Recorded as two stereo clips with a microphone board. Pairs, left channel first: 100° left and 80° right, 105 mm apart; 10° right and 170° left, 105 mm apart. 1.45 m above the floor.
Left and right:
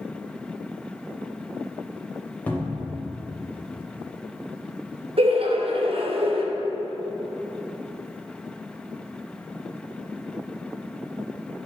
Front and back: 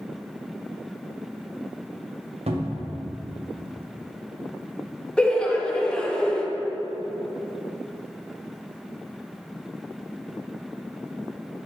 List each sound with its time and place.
2.5 s a cupboard door: 175° left, 0.6 m
5.2 s laughter: 90° right, 0.5 m